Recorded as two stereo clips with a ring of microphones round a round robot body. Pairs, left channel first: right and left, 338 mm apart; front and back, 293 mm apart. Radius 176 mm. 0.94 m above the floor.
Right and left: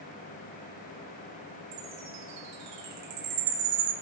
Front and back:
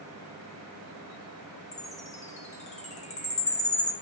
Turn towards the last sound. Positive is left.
turn(degrees=65)